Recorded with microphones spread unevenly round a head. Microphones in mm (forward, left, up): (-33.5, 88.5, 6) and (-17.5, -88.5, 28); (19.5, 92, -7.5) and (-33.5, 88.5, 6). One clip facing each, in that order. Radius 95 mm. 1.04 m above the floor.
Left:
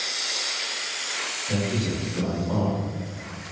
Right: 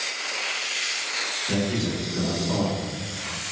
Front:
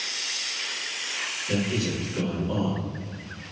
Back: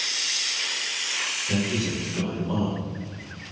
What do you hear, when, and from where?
1.5 s a man speaking: 70° right, 1.5 m